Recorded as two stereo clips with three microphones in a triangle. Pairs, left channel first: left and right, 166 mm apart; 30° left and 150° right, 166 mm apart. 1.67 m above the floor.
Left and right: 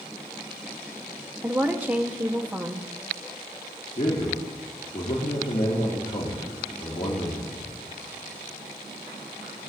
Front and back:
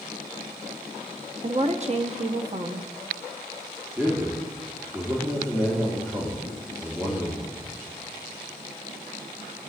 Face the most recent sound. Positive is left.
turn(degrees=130)